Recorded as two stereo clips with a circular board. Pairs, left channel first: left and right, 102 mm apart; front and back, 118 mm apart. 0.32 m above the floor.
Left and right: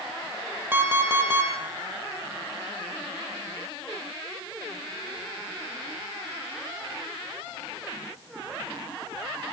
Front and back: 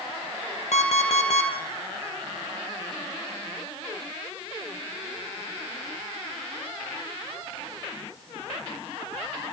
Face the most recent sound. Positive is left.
turn(degrees=-20)